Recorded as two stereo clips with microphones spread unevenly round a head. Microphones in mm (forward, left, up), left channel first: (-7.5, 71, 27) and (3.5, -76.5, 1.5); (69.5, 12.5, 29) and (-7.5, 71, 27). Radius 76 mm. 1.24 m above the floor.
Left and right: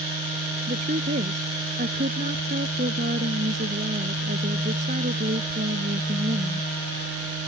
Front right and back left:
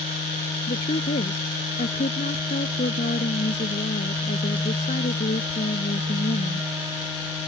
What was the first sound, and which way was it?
A woman speaking, 40° right.